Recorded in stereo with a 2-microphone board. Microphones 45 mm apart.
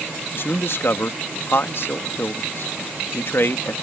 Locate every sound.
0.3 s a man speaking: 60° left (ahead or behind)